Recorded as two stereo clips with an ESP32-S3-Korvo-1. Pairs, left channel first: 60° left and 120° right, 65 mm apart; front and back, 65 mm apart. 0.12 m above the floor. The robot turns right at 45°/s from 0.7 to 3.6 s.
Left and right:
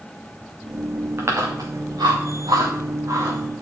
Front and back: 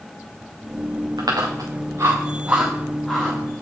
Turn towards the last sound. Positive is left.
turn(degrees=-60)